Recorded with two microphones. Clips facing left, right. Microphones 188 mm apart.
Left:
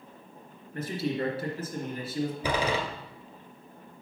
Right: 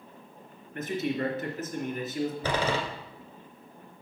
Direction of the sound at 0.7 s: 35° left (ahead or behind).